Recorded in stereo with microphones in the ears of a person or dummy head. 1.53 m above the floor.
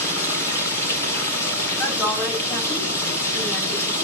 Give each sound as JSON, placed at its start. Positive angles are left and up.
{"t": 0.0, "sound": "running water", "side_deg": 20, "distance_m": 5.0}
{"t": 1.8, "sound": "a woman speaking", "side_deg": 25, "distance_m": 8.5}